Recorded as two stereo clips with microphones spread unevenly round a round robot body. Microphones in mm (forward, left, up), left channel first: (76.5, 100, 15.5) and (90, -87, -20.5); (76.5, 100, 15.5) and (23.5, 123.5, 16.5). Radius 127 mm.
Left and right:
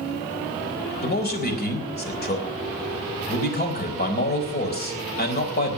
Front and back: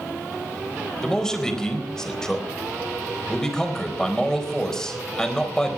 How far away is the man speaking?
About 4.5 m.